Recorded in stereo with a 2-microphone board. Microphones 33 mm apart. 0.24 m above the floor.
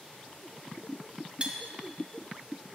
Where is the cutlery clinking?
35° right (ahead or behind), 0.9 m.